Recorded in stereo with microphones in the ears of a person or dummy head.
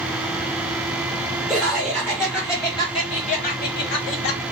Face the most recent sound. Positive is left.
turn(degrees=65)  # may be behind; listen again after turning